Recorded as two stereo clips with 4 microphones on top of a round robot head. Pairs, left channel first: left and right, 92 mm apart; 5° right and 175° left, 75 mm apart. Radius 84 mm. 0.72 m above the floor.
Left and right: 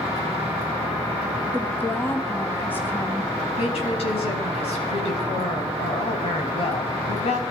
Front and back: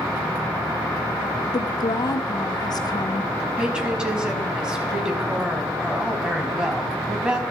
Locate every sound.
1.5 s a woman speaking: 20° left, 1.7 m
3.6 s a woman speaking: 95° left, 5.5 m